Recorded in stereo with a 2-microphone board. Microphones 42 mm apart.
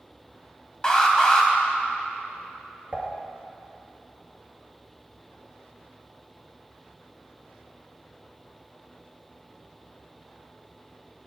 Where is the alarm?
20° left (ahead or behind), 1.8 m.